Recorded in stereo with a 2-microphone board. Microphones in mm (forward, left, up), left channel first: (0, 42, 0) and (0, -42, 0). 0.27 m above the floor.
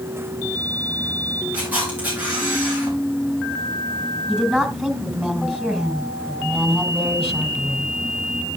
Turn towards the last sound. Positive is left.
turn(degrees=-15)  # may be behind; listen again after turning